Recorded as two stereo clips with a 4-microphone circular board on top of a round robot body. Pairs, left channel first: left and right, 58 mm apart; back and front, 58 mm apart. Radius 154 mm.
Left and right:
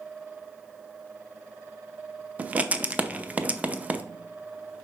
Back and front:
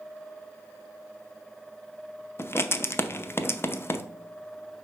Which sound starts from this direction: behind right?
Writing, at 2.4 s.